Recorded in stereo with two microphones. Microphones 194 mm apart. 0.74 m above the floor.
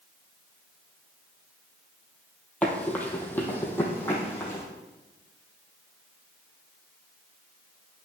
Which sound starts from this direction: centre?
Running footsteps, at 2.6 s.